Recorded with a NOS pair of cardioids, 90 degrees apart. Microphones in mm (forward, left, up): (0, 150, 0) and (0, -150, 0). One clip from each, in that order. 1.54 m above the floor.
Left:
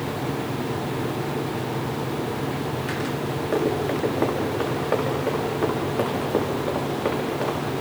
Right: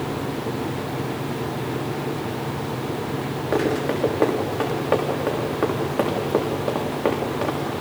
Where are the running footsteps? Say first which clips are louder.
Right 2 dB; 30° right, 7.5 m.